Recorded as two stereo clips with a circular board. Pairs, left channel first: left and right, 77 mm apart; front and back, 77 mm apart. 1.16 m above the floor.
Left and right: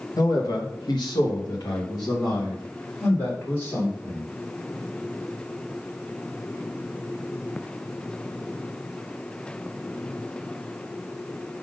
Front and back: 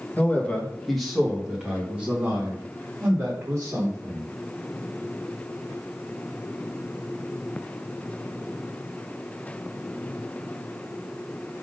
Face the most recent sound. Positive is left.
turn(degrees=130)